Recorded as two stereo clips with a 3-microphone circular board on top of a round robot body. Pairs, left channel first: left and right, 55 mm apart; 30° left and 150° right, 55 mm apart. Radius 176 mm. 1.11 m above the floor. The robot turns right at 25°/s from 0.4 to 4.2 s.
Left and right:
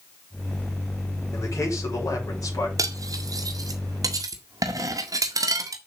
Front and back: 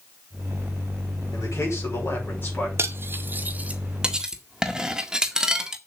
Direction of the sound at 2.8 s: 105° right.